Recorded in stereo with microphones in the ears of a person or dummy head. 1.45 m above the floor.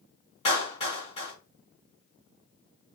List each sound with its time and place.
0.5 s a clap: 25° left (ahead or behind), 2.5 m